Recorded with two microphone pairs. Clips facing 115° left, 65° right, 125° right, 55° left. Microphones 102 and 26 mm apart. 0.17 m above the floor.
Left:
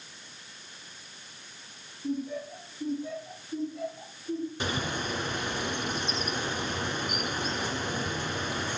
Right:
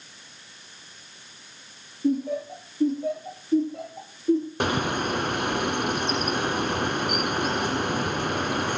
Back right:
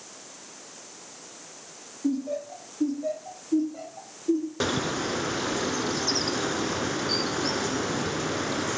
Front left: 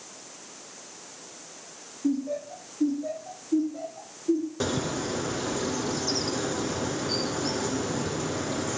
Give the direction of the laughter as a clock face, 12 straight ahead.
2 o'clock.